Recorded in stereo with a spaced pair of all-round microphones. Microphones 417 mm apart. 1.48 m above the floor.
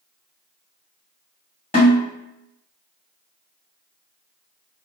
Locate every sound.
1.7 s a snare drum: 15° left (ahead or behind), 1.8 m